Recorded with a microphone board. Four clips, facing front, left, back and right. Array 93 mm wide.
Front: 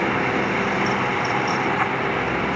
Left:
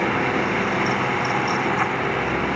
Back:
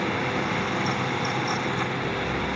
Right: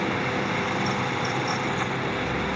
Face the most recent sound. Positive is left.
No sound to turn to.